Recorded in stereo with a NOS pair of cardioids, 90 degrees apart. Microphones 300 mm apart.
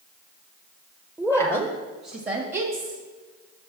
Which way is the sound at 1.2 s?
5° right.